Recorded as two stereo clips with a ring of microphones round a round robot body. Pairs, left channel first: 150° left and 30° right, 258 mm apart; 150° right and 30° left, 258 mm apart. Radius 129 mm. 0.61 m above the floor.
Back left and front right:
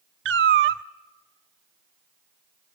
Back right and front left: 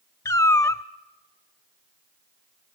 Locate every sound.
0.2 s a cat meowing: 70° right, 0.5 m